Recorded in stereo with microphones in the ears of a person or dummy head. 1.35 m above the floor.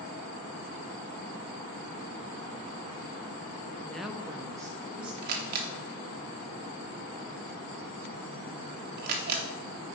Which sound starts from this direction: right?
A camera shutter, at 5.2 s.